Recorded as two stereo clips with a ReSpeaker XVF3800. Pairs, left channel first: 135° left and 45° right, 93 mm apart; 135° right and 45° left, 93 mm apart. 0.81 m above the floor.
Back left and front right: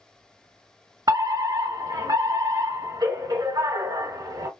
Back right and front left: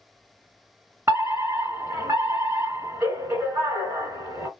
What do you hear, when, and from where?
1.1 s a fire alarm: 15° right, 2.5 m